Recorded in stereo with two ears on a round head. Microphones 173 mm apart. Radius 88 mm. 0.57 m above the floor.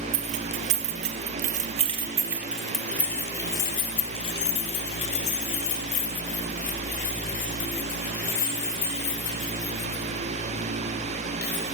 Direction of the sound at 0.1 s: 70° right (ahead or behind).